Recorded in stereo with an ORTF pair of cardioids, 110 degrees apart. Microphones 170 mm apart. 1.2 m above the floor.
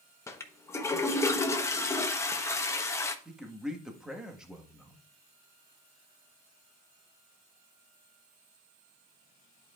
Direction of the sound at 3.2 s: 5° right.